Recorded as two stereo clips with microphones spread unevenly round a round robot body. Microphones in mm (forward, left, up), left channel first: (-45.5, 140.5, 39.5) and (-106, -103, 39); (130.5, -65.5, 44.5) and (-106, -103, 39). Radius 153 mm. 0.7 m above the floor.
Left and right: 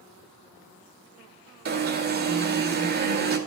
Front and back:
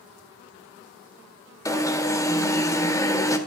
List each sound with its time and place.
1.6 s an alarm: 65° right, 2.0 m